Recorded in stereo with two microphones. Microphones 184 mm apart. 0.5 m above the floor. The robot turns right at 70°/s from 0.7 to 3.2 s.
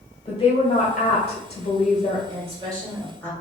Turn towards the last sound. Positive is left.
turn(degrees=10)